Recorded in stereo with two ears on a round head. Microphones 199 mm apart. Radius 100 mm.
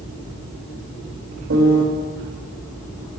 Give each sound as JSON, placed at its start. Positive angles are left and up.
{"t": 1.5, "sound": "a piano", "side_deg": -70, "distance_m": 2.0}